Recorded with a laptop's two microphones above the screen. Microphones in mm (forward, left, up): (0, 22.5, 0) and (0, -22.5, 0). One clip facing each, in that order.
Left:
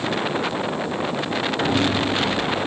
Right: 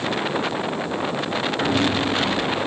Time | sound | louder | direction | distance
1.6 | footsteps | even | centre (ahead or behind) | 1.1 m